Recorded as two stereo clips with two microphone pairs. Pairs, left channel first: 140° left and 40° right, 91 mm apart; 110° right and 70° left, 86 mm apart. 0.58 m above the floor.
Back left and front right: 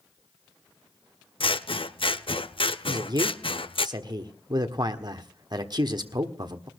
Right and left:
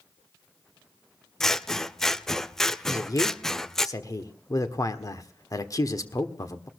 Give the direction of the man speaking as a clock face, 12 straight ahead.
2 o'clock.